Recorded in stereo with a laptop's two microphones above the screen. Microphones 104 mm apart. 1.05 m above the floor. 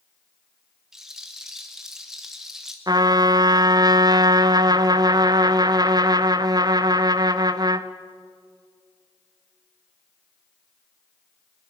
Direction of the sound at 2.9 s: 40° right (ahead or behind).